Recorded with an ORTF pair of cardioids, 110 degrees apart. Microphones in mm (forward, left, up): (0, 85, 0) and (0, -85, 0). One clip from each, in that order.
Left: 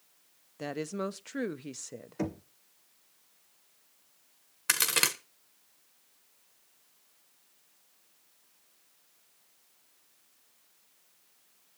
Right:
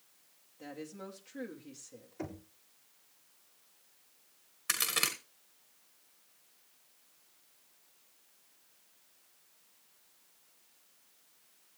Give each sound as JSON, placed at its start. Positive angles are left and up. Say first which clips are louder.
{"t": 0.6, "sound": "a woman speaking", "louder": "left 11 dB", "azimuth_deg": 65, "distance_m": 0.9}
{"t": 2.2, "sound": "knocking", "louder": "left 7 dB", "azimuth_deg": 65, "distance_m": 1.9}
{"t": 4.7, "sound": "a crack", "louder": "left 5 dB", "azimuth_deg": 40, "distance_m": 1.6}